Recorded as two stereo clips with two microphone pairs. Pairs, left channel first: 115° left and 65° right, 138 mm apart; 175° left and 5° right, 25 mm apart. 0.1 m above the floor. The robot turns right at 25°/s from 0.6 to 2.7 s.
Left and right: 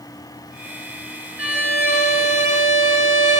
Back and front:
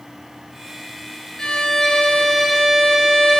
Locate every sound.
1.4 s a violin: 135° right, 1.6 m; by 3.4 s 100° right, 1.6 m